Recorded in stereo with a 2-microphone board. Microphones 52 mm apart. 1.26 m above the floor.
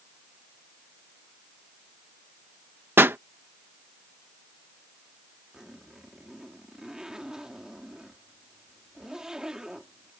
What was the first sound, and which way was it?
A pop, 45° right (ahead or behind).